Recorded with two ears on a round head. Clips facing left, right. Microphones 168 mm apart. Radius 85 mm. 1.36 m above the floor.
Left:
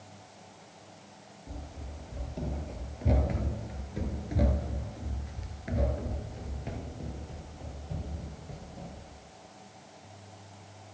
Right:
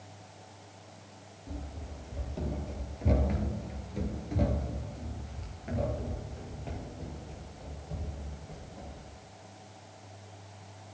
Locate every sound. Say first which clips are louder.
1.5 s running footsteps: right 2 dB; 5° right (ahead or behind), 2.5 m; by 9.1 s 15° left (ahead or behind), 2.5 m